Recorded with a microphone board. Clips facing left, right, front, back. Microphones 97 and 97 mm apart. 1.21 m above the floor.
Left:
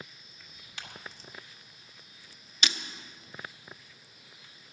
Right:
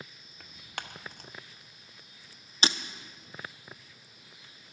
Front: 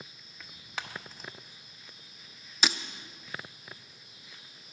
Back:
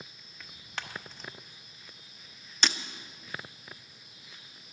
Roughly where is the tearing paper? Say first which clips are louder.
Right 6 dB, front 1 dB; right.